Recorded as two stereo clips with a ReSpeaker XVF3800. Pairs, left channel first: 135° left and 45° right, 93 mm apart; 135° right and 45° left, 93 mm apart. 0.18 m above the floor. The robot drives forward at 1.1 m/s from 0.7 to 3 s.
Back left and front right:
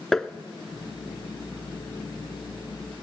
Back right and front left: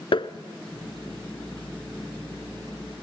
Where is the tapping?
140° right, 0.6 m.